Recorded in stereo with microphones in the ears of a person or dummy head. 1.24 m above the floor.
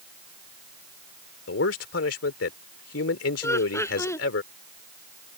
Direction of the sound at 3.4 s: 20° left (ahead or behind).